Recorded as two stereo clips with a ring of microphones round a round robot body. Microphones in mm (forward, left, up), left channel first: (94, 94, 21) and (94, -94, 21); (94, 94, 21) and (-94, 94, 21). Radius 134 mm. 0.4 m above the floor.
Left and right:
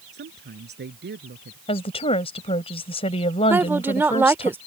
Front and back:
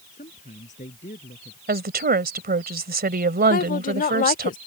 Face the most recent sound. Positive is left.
turn(degrees=-15)